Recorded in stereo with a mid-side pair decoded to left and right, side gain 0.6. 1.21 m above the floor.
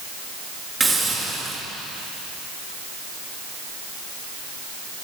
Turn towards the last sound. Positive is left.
turn(degrees=-15)